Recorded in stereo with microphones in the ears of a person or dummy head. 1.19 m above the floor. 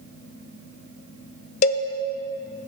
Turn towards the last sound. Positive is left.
turn(degrees=40)  # may be behind; listen again after turning